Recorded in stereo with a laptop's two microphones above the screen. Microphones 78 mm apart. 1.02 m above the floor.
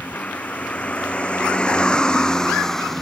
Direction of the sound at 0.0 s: 20° left (ahead or behind).